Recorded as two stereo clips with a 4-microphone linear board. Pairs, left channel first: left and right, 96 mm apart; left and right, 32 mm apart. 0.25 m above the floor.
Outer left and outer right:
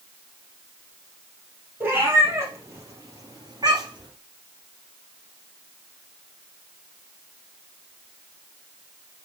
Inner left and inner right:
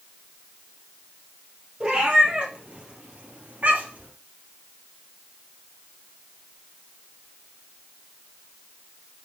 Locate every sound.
1.8 s a cat meowing: 25° right (ahead or behind), 2.5 m; by 4.1 s 50° right (ahead or behind), 2.5 m